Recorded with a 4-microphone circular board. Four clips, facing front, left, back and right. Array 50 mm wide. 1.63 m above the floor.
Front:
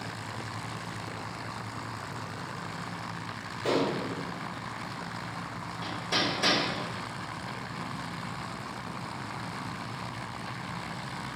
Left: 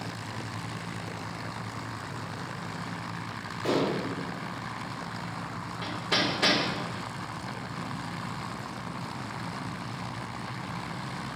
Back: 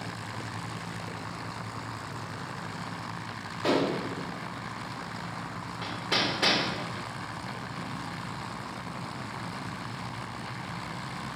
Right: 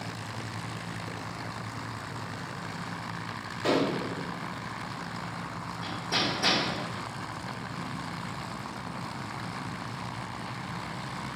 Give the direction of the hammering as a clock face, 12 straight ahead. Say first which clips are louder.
Left 2 dB, back 1 dB; 7 o'clock.